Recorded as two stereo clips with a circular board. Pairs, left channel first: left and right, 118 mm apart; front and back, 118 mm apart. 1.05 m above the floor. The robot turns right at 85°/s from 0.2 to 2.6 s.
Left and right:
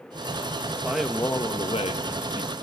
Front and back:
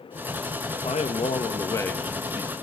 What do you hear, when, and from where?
0.8 s a man speaking: 25° right, 1.6 m; by 2.5 s 125° left, 1.6 m